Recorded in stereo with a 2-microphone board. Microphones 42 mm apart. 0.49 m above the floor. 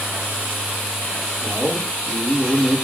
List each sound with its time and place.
1.4 s a man speaking: 30° left (ahead or behind), 9.5 m